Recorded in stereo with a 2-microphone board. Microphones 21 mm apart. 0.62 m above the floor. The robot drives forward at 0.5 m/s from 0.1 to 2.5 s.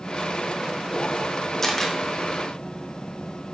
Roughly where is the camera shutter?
Centre.